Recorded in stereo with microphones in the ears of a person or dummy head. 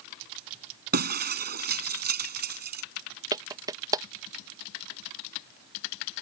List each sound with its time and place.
0.9 s breaking glass: 45° right (ahead or behind)
3.3 s a clap: 20° right (ahead or behind)